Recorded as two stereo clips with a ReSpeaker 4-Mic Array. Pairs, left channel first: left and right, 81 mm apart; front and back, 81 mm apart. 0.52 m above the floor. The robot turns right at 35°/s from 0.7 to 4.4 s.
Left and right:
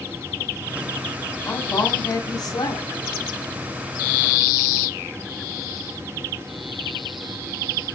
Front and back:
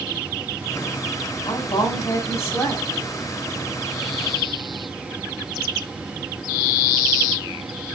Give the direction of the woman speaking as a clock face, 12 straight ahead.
11 o'clock.